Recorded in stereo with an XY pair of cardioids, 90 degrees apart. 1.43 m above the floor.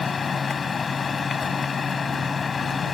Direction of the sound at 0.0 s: 45° left.